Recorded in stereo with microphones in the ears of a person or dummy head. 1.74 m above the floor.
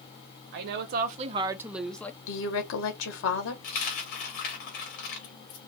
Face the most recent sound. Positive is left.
turn(degrees=45)  # may be behind; listen again after turning